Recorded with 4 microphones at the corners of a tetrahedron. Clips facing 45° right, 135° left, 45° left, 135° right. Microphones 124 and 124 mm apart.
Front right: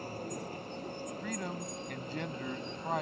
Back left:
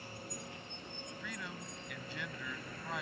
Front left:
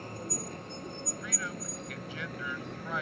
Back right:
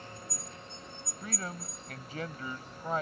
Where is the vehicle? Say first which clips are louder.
Front right 8 dB, front left 7 dB; 5° left; by 3.0 s 25° left.